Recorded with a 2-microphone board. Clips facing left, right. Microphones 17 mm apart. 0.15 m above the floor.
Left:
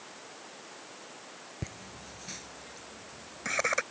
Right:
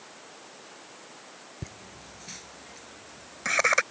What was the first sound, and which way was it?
Laughter, 15° left (ahead or behind).